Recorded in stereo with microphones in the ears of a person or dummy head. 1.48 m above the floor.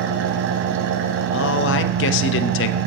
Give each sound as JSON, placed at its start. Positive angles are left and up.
{"t": 0.0, "sound": "an engine running", "side_deg": -65, "distance_m": 0.7}
{"t": 1.3, "sound": "a man speaking", "side_deg": 65, "distance_m": 0.5}